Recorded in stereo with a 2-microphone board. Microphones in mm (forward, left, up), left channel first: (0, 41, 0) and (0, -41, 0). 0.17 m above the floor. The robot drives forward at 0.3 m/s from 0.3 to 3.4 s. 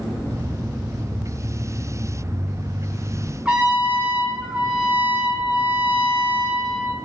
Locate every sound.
3.5 s a trumpet: 15° right (ahead or behind), 1.3 m